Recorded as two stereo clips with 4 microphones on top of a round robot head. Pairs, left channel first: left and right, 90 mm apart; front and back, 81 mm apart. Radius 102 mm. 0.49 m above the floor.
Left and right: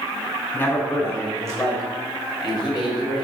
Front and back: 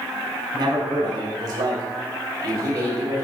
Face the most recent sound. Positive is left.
turn(degrees=120)